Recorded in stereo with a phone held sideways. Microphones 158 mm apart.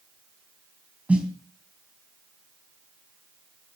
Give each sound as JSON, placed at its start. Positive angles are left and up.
{"t": 1.1, "sound": "a snare drum", "side_deg": -10, "distance_m": 3.5}